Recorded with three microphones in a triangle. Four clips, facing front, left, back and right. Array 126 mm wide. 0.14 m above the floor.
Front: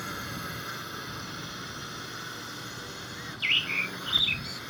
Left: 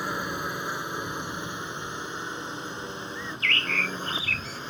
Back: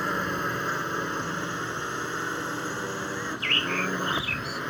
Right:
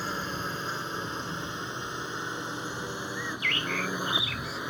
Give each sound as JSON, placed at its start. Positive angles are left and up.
{"t": 0.0, "sound": "a drone", "azimuth_deg": 160}
{"t": 3.1, "sound": "a bird", "azimuth_deg": 40}